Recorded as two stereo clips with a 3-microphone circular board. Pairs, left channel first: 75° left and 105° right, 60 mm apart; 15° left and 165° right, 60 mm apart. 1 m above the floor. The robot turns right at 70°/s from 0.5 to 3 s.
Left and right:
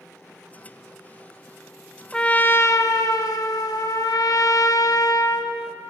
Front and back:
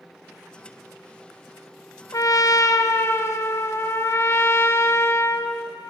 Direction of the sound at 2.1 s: 5° right.